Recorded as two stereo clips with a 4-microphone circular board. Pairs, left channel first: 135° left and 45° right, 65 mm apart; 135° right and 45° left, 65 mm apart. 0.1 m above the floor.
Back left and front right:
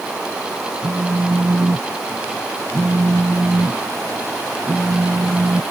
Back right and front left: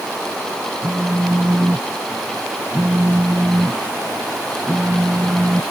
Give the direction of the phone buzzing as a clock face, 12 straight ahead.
1 o'clock.